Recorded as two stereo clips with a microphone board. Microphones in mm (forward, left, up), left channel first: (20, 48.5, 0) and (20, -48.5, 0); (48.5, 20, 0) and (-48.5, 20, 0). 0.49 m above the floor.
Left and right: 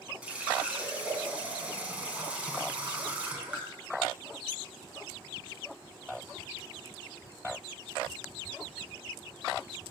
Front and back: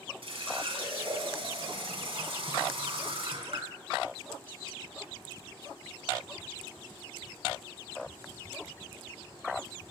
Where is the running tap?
165° right, 3 m.